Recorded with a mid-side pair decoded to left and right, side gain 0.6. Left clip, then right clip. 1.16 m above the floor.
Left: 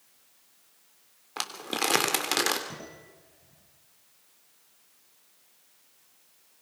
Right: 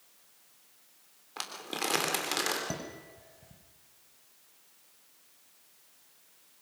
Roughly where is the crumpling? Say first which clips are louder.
Left 5 dB; ahead left.